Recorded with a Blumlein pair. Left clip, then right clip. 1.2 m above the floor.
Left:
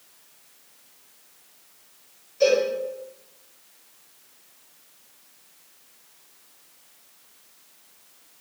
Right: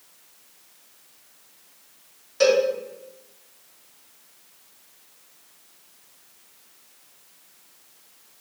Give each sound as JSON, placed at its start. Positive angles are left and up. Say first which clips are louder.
{"t": 2.4, "sound": "a cowbell", "louder": "right 1 dB", "azimuth_deg": -35, "distance_m": 3.0}